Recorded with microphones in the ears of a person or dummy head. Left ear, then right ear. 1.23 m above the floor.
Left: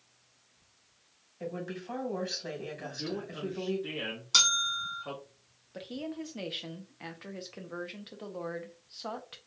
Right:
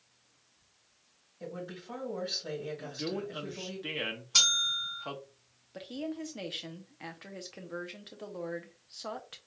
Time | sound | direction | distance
1.4 | a woman speaking | 60° left (ahead or behind) | 2 m
2.8 | a man speaking | 35° right (ahead or behind) | 0.6 m
4.3 | a bell | 65° left (ahead or behind) | 1.6 m
5.7 | a woman speaking | centre (ahead or behind) | 0.5 m